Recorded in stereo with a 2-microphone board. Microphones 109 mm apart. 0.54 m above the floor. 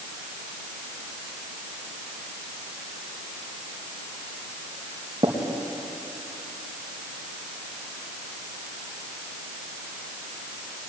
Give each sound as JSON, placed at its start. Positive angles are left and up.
{"t": 5.2, "sound": "tapping", "side_deg": -40, "distance_m": 4.0}